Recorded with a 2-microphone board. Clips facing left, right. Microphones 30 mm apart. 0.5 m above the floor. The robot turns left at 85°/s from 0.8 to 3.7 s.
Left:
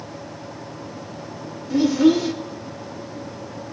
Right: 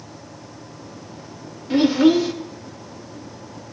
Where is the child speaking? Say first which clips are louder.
Right 1 dB; 130° right, 0.6 m; by 2.3 s straight behind, 0.6 m.